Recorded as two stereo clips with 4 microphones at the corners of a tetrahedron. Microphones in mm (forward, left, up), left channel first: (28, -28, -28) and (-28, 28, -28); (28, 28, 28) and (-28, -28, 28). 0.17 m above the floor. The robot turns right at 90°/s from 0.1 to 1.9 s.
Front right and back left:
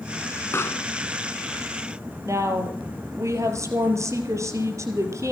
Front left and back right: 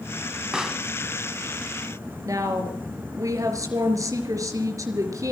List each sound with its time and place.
0.5 s a pop: 60° right, 1.1 m; by 0.9 s 30° right, 1.1 m
2.2 s a woman speaking: 175° right, 3.5 m